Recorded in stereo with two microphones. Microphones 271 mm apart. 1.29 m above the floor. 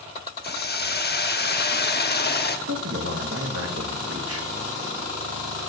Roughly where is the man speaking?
Right.